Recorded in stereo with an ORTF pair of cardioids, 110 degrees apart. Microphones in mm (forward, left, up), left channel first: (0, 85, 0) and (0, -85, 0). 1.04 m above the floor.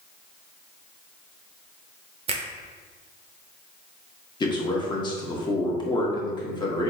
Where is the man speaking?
25° left, 1.2 m.